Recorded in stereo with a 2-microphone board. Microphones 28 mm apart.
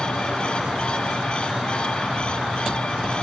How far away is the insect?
About 9 m.